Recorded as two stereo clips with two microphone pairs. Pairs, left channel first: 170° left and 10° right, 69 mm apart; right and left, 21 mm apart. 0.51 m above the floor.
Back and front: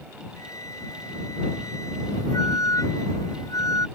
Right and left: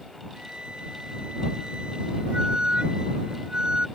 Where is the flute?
140° left.